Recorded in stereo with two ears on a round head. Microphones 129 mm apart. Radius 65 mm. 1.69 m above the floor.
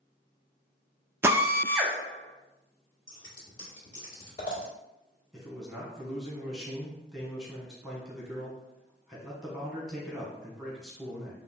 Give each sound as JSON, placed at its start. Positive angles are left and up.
{"t": 1.2, "sound": "a drill", "side_deg": -15, "distance_m": 0.5}
{"t": 3.1, "sound": "scissors", "side_deg": 30, "distance_m": 1.8}
{"t": 5.3, "sound": "a man speaking", "side_deg": -5, "distance_m": 1.1}